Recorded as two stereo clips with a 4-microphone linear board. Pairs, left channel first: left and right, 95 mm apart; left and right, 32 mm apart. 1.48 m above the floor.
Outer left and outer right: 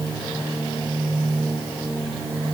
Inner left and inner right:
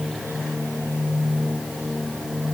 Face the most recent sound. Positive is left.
No sound to turn to.